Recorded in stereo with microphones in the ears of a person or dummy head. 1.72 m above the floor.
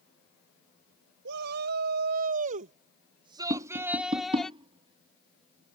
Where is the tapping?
30° right (ahead or behind).